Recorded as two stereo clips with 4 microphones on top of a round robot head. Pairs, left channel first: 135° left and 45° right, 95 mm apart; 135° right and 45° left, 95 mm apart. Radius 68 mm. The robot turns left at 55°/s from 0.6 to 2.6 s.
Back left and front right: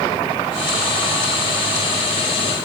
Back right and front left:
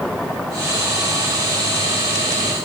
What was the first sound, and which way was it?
Only background noise.